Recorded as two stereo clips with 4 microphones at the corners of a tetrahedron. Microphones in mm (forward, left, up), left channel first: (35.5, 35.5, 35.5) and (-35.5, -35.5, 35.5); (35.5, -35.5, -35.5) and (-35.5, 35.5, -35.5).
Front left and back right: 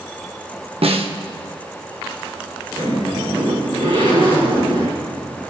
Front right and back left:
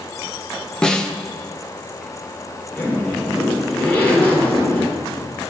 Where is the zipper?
115° right, 5 m.